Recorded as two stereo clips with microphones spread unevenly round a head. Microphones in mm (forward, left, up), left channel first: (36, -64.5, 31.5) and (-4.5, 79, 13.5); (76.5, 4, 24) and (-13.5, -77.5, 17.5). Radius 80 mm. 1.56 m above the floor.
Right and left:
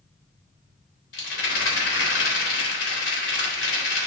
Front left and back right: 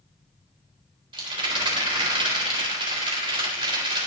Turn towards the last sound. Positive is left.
turn(degrees=-90)